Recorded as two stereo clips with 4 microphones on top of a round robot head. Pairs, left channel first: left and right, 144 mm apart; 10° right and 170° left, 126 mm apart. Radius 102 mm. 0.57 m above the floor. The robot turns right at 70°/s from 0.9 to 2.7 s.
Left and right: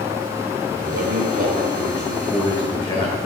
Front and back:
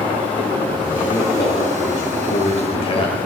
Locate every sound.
0.8 s a man speaking: 100° right, 3.5 m; by 3.2 s 25° left, 3.5 m